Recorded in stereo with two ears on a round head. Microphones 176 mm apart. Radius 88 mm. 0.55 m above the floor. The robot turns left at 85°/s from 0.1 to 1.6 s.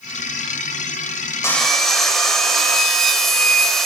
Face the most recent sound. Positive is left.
turn(degrees=0)  # may be behind; listen again after turning